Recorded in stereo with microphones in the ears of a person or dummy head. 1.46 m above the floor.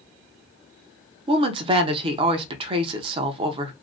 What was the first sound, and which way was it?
A woman speaking, 25° right (ahead or behind).